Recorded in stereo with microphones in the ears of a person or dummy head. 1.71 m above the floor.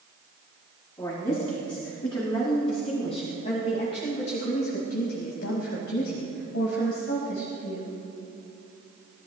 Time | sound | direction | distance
1.0 | a woman speaking | 25° left (ahead or behind) | 4 m